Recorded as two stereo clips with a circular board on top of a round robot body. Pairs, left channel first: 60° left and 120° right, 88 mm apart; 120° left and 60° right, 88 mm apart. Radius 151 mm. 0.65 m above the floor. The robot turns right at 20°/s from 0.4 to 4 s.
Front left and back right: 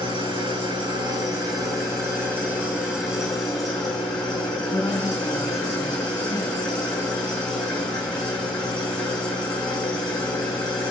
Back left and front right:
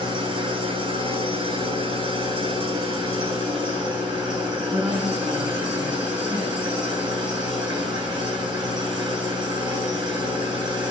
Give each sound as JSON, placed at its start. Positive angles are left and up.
{"t": 0.0, "sound": "an engine running", "azimuth_deg": -90, "distance_m": 9.0}
{"t": 4.5, "sound": "a woman speaking", "azimuth_deg": -5, "distance_m": 7.0}